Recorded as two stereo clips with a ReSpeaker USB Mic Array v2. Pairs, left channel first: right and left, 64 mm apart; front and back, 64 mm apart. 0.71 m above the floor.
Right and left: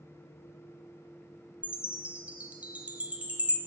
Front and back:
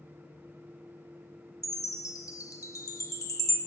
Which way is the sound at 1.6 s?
25° left.